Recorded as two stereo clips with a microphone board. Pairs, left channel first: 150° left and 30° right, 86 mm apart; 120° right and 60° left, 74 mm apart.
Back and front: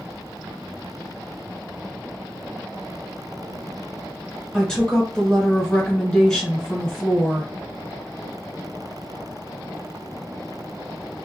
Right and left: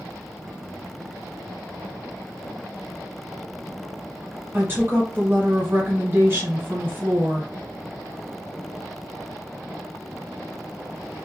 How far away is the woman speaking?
About 1.3 m.